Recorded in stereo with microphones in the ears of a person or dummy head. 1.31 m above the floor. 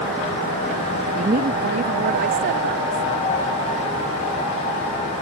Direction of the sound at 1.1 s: 35° right (ahead or behind).